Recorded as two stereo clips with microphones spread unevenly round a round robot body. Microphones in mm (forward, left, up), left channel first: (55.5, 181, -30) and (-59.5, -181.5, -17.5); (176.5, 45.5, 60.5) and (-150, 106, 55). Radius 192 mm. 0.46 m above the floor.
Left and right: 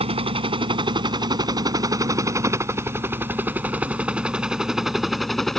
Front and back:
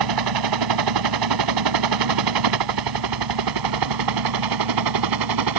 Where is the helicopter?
175° left; by 5.6 s 160° left.